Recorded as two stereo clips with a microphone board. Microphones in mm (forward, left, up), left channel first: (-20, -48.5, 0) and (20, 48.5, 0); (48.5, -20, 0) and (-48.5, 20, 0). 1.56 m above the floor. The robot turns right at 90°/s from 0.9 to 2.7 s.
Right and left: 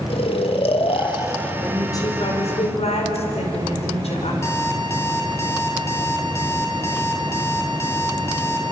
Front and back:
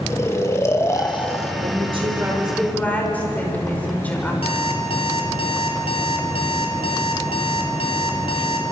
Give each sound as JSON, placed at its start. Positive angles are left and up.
{"t": 0.1, "sound": "snoring", "azimuth_deg": -85, "distance_m": 1.5}
{"t": 1.6, "sound": "a woman speaking", "azimuth_deg": 165, "distance_m": 5.0}
{"t": 4.4, "sound": "an alarm clock", "azimuth_deg": -50, "distance_m": 3.5}